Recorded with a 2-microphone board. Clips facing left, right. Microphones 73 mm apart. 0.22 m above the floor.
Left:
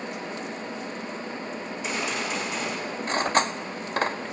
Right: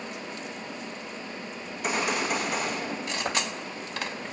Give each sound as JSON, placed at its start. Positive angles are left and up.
{"t": 1.7, "sound": "a gunshot", "side_deg": -55, "distance_m": 7.0}
{"t": 3.1, "sound": "cutlery clinking", "side_deg": 40, "distance_m": 0.7}